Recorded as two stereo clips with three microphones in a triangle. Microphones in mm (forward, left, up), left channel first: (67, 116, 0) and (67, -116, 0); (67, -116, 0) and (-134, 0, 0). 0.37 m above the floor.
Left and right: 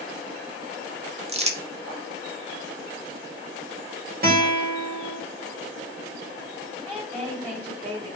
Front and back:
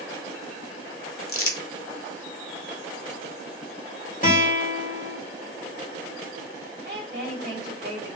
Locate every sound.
1.3 s crumpling: 25° right, 0.8 m
4.2 s a guitar: 65° right, 1.8 m
6.8 s a woman speaking: 165° right, 3 m